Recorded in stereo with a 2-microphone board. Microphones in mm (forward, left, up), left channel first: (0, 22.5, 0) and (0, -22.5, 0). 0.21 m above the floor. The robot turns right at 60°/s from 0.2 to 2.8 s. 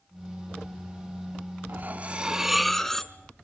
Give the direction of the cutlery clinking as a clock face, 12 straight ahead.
2 o'clock.